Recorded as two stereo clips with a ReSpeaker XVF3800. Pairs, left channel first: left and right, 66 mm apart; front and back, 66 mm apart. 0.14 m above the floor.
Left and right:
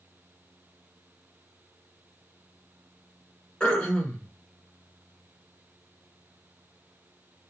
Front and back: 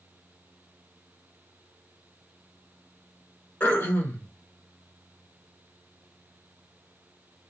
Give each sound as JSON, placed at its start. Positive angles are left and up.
{"t": 3.6, "sound": "throat clearing", "azimuth_deg": 30, "distance_m": 1.1}